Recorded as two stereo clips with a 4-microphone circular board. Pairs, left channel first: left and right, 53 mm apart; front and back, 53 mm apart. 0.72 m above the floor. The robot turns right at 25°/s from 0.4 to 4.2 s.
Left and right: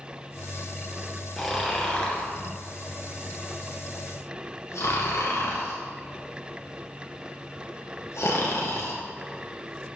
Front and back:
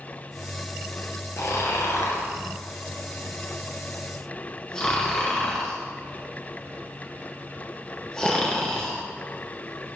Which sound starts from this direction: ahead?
Snoring, at 1.4 s.